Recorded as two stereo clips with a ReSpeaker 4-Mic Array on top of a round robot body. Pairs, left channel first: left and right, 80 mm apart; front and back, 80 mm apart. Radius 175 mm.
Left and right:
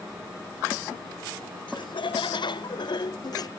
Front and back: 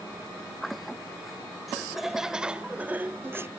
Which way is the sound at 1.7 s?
90° left.